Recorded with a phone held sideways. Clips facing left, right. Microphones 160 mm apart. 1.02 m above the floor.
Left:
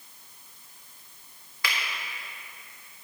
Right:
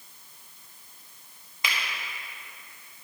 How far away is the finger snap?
About 1.7 m.